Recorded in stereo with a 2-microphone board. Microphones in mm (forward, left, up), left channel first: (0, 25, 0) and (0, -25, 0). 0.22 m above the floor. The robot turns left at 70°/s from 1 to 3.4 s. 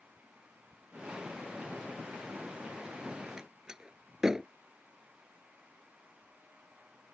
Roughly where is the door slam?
Centre.